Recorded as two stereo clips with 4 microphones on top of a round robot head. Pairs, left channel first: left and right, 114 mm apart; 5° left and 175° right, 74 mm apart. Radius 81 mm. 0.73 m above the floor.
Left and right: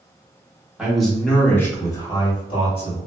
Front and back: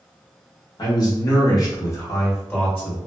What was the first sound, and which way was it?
A man speaking, 5° right.